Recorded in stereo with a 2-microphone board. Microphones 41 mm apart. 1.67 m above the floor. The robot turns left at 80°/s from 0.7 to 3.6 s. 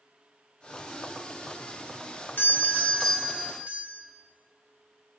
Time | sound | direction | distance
2.4 | a doorbell | 60° left | 1.2 m